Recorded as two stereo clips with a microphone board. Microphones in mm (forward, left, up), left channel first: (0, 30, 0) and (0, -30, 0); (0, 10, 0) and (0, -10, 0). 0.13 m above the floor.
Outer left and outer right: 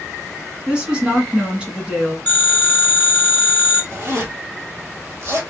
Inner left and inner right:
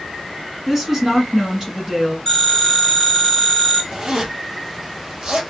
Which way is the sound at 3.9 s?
45° right (ahead or behind).